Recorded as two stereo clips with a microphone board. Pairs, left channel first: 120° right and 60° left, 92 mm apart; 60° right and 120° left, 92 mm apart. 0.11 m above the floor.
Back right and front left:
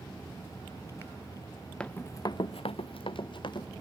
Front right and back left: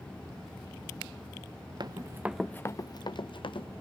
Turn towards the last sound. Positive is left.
turn(degrees=-85)